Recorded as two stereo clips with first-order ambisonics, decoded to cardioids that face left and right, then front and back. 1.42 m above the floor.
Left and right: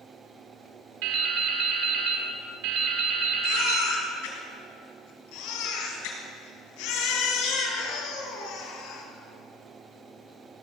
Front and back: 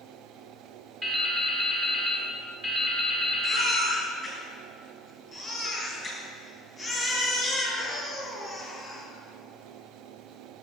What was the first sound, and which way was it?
Dripping, 100° right.